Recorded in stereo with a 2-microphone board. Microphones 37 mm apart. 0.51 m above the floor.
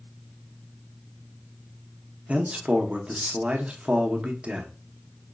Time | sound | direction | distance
2.3 | a man speaking | 35° right (ahead or behind) | 0.8 m